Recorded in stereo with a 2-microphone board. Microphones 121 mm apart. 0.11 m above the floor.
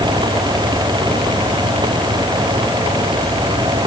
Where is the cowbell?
No cowbell in this recording.